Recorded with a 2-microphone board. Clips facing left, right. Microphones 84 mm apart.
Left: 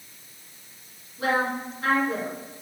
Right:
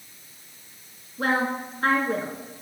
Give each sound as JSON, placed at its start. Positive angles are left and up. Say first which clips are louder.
{"t": 1.2, "sound": "a woman speaking", "louder": "even", "side_deg": -45, "distance_m": 2.0}